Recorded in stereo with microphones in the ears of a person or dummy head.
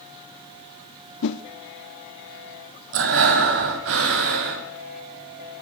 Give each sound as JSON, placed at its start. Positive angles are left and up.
{"t": 1.2, "sound": "a whoosh", "side_deg": 65, "distance_m": 1.1}
{"t": 2.9, "sound": "breathing", "side_deg": -70, "distance_m": 2.5}